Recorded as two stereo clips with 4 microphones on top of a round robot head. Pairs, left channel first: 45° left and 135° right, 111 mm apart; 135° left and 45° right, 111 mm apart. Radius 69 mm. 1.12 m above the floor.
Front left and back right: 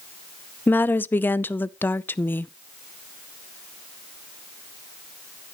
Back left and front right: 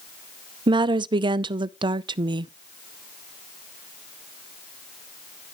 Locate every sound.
0.7 s a woman speaking: 20° right, 0.5 m